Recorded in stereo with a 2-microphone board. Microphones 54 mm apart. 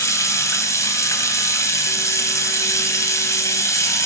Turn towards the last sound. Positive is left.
turn(degrees=75)  # may be behind; listen again after turning